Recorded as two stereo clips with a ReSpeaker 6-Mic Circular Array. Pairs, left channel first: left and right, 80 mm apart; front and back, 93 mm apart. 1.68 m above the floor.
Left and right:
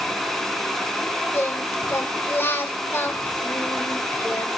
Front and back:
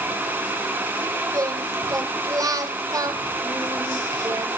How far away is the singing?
About 2.0 m.